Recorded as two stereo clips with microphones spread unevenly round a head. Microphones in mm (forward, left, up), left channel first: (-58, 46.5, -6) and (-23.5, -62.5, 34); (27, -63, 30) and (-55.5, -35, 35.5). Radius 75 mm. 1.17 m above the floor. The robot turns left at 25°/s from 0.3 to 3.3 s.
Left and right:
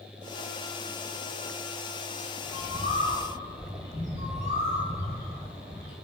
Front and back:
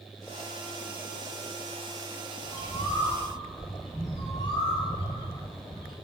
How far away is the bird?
About 0.8 m.